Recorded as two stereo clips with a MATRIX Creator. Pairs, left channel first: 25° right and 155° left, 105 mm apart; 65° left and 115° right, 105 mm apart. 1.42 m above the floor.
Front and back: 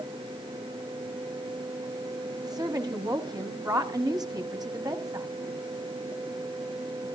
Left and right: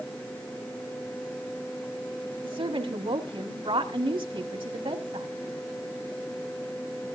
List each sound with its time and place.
2.4 s a woman speaking: 150° right, 1.5 m